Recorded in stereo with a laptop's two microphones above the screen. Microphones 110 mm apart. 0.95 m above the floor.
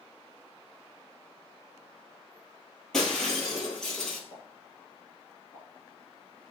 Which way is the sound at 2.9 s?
5° left (ahead or behind).